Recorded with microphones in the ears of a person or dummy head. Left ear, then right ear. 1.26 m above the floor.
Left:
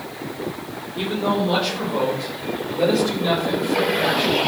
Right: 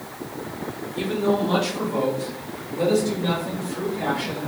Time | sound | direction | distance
0.9 | a man speaking | 25° right (ahead or behind) | 3.5 m